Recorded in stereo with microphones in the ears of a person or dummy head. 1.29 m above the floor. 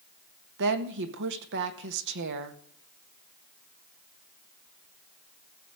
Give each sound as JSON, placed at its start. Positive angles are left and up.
{"t": 0.6, "sound": "a woman speaking", "side_deg": -65, "distance_m": 1.3}